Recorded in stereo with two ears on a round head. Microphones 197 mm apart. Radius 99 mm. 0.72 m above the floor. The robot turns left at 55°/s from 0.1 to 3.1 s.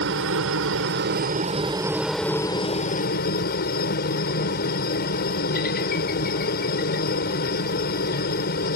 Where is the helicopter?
70° right; by 8.8 s 125° left.